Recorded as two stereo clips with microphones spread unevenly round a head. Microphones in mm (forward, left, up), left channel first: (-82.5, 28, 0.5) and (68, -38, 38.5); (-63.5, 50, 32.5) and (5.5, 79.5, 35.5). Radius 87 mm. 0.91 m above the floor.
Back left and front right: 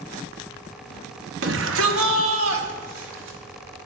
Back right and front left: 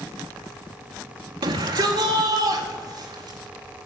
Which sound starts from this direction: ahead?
A shout, at 1.4 s.